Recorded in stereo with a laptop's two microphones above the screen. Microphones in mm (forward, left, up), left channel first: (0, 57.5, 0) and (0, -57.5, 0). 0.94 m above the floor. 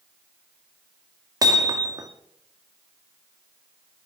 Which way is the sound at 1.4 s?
35° right (ahead or behind).